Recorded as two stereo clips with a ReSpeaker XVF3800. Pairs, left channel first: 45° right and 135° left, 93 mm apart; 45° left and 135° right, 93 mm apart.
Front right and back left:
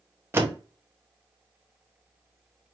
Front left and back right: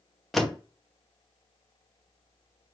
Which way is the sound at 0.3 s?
130° left.